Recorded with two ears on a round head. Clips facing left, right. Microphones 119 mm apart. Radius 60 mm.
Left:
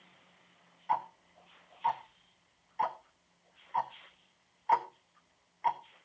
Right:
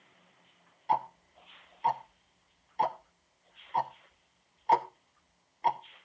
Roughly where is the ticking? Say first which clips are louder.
Right 3 dB; right.